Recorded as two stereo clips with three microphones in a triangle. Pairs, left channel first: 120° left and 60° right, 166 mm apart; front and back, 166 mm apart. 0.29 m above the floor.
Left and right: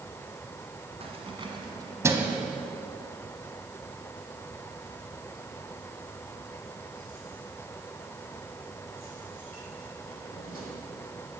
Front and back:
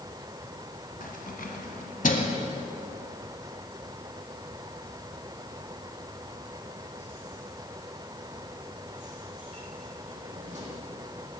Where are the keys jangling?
10° right, 2.0 m; by 10.7 s 140° left, 7 m.